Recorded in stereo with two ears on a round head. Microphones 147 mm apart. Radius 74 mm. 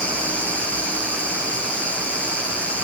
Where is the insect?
10° left (ahead or behind), 3 m.